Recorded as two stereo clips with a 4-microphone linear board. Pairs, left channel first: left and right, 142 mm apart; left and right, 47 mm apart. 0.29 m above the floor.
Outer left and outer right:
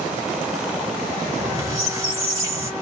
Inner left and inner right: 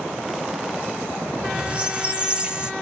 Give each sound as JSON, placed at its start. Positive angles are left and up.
{"t": 1.3, "sound": "a squeak", "side_deg": -20, "distance_m": 1.1}